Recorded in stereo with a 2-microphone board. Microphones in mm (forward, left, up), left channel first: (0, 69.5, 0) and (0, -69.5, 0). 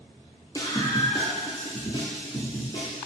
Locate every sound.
0.6 s a scream: 25° left (ahead or behind), 0.9 m; by 3.0 s 35° left (ahead or behind), 2 m